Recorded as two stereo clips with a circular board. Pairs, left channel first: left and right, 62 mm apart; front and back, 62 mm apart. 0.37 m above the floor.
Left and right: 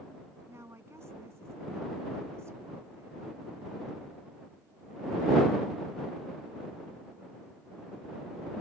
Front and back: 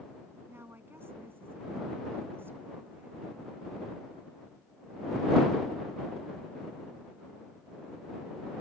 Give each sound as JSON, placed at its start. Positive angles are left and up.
{"t": 0.5, "sound": "a woman speaking", "azimuth_deg": -130}